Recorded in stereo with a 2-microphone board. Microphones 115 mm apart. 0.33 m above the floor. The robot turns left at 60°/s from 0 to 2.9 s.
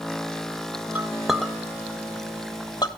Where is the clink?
15° right (ahead or behind), 0.6 m; by 2.9 s 40° left (ahead or behind), 0.6 m.